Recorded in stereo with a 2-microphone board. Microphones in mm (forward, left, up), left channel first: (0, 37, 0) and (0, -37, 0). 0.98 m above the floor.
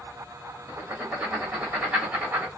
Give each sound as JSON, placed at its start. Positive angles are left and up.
{"t": 0.7, "sound": "writing", "side_deg": -15, "distance_m": 1.8}